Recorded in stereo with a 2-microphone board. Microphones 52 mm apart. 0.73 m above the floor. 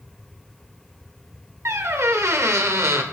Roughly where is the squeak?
Right.